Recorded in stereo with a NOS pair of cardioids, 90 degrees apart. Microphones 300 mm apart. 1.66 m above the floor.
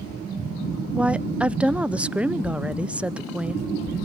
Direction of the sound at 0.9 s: 5° right.